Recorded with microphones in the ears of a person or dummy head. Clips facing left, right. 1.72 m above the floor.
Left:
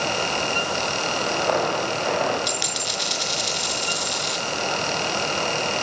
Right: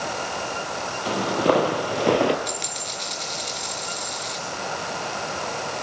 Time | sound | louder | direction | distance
1.1 | footsteps | right 5 dB | 45° right (ahead or behind) | 3 m
2.5 | a dropped coin | left 3 dB | 10° left (ahead or behind) | 4 m